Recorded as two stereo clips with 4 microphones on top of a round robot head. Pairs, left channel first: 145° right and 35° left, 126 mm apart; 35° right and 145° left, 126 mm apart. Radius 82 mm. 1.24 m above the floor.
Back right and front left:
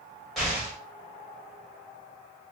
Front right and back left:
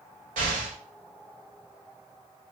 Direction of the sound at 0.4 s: 125° left.